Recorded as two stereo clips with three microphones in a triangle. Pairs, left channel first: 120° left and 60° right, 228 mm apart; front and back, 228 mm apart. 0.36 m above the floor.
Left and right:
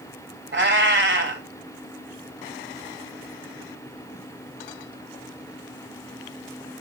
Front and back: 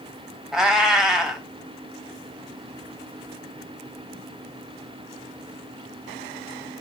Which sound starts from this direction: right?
A cat meowing, at 0.5 s.